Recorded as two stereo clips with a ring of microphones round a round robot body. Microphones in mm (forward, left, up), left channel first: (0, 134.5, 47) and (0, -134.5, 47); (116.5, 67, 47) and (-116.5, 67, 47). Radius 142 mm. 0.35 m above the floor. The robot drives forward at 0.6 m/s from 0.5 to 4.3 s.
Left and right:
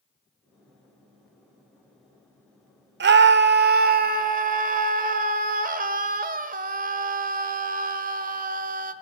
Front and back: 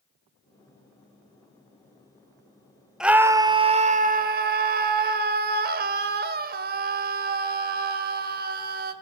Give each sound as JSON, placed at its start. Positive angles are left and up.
{"t": 3.0, "sound": "a scream", "azimuth_deg": -95, "distance_m": 1.1}